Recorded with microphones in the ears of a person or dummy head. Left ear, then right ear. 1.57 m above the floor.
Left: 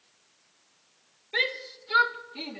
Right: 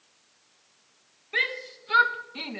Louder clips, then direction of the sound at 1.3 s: Right 1 dB; 25° right (ahead or behind).